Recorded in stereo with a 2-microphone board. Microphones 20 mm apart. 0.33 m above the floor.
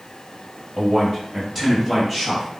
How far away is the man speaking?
About 1.2 m.